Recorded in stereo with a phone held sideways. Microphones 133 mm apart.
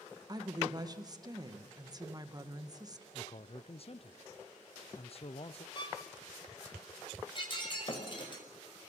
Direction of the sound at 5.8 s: 35° left (ahead or behind).